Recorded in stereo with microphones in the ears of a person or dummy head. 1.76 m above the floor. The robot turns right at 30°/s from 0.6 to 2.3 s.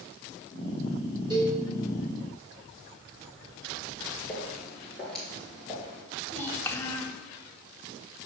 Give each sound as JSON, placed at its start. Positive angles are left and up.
{"t": 1.3, "sound": "a cowbell", "side_deg": -25, "distance_m": 3.0}
{"t": 4.3, "sound": "footsteps", "side_deg": 5, "distance_m": 1.9}
{"t": 6.3, "sound": "a child speaking", "side_deg": 15, "distance_m": 0.7}